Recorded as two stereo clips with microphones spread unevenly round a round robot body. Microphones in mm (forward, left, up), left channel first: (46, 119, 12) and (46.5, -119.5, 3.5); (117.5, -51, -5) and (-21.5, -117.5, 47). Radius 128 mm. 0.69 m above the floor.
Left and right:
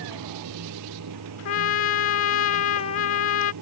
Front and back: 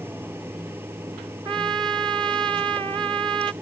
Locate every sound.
0.0 s running water: 80° right
1.4 s a trumpet: 130° left